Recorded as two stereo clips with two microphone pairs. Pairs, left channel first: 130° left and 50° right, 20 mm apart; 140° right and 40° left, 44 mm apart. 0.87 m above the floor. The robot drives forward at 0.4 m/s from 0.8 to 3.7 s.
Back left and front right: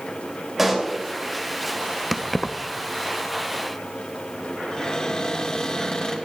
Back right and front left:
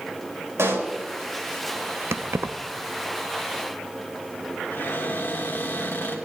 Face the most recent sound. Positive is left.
turn(degrees=-175)